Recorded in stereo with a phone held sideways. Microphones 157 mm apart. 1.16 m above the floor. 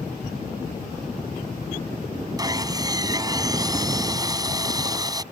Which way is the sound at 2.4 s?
25° right (ahead or behind).